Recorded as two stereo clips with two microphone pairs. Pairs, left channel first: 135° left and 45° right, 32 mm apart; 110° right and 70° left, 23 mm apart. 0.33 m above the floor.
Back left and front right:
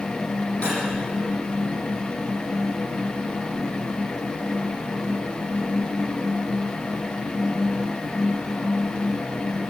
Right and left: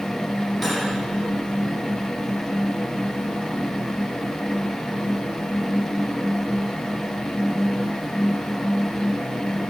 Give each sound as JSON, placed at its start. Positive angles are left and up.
{"t": 0.6, "sound": "cutlery clinking", "azimuth_deg": 150, "distance_m": 8.0}